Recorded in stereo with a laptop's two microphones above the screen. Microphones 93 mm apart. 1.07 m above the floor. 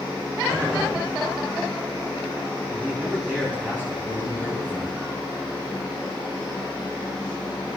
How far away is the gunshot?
About 8 m.